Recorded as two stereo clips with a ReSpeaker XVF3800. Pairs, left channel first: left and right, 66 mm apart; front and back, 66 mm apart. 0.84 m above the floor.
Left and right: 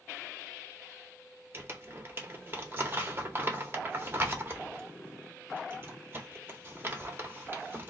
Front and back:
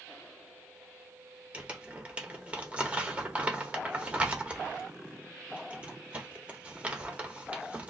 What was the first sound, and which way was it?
Crumpling, 120° right.